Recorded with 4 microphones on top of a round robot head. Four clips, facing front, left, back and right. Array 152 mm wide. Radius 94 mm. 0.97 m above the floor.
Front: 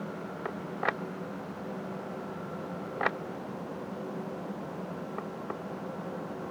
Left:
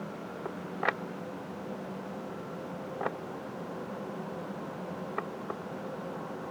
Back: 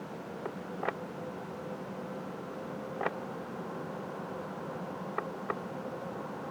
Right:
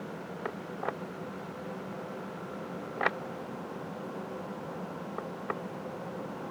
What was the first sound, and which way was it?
Only background noise.